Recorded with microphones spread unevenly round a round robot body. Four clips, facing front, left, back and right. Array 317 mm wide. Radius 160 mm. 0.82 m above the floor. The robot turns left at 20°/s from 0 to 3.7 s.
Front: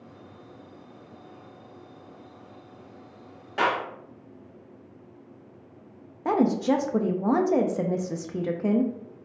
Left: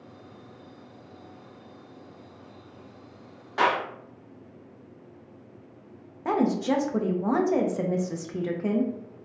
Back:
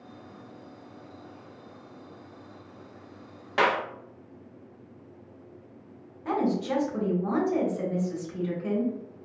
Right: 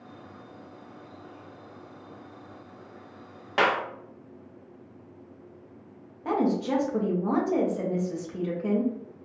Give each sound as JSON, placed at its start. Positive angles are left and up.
{"t": 3.6, "sound": "a clap", "azimuth_deg": -130, "distance_m": 0.7}
{"t": 6.2, "sound": "a woman speaking", "azimuth_deg": 20, "distance_m": 0.7}